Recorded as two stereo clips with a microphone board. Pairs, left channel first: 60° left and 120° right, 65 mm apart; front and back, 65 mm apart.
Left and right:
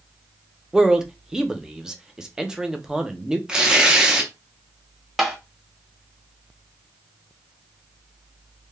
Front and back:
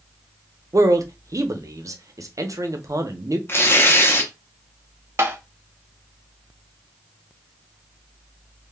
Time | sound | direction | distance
0.7 | a man speaking | 160° left | 0.5 m
3.5 | tearing paper | 45° right | 0.5 m
5.2 | tapping | 155° left | 0.6 m